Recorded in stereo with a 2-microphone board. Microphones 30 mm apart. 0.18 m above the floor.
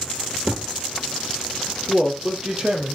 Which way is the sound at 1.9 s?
35° right (ahead or behind).